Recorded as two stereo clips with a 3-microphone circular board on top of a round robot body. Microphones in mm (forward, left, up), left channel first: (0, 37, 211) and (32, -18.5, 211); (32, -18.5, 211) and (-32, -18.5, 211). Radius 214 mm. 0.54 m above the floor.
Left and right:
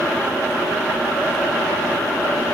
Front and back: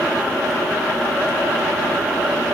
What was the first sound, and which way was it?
Only background noise.